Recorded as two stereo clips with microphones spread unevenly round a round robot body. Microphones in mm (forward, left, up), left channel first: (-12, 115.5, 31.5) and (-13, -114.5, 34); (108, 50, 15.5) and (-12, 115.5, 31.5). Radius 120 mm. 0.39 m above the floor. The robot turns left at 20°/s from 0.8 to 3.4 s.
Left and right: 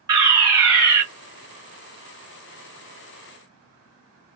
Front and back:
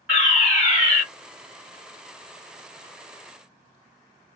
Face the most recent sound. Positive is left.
turn(degrees=180)